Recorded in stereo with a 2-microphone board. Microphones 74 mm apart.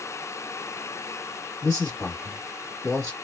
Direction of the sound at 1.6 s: 25° left (ahead or behind).